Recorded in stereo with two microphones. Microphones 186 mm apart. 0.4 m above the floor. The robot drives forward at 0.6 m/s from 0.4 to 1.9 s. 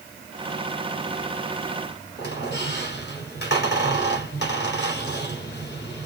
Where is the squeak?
60° left (ahead or behind), 2 m.